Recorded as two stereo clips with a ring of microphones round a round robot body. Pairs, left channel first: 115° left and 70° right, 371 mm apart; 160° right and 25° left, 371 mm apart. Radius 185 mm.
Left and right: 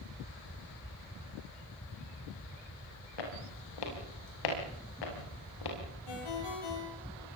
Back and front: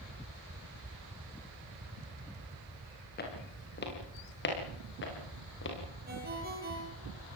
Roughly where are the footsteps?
Behind left.